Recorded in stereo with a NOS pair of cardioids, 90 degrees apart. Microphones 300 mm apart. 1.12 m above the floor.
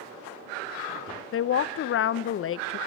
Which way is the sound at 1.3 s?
45° left.